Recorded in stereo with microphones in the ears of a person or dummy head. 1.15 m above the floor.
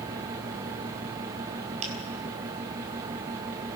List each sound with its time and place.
1.8 s a finger snap: 45° right (ahead or behind), 5 m